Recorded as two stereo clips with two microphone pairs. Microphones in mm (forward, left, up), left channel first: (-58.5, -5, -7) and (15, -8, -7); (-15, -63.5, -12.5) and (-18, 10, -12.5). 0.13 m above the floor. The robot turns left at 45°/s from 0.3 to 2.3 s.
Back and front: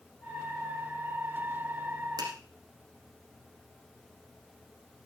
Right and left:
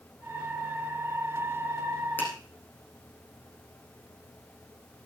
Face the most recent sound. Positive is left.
turn(degrees=-30)